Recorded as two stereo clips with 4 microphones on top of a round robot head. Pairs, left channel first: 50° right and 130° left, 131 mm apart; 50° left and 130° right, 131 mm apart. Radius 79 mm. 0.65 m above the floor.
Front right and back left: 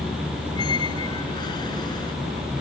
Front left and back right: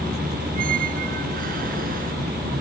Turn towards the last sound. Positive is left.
turn(degrees=-110)